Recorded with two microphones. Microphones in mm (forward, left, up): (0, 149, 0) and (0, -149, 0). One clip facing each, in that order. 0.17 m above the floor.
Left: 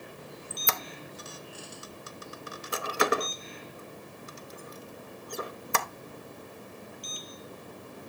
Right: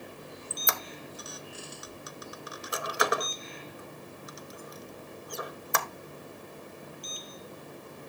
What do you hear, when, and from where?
0.5 s a squeak: 30° left (ahead or behind), 0.5 m